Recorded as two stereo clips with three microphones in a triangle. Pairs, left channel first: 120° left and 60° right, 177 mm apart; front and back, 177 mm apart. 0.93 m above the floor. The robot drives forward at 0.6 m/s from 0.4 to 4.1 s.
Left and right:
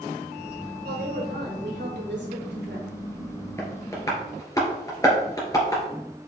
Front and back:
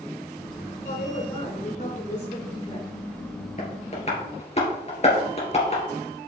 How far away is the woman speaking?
About 3.5 m.